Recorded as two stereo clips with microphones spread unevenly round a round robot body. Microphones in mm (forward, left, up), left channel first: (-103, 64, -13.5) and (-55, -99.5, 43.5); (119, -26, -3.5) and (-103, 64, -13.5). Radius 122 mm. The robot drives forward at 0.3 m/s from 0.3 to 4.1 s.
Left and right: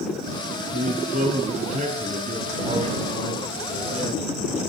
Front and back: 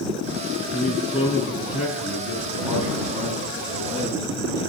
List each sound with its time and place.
0.7 s a man speaking: 115° right, 5 m; by 4.7 s 125° right, 5.5 m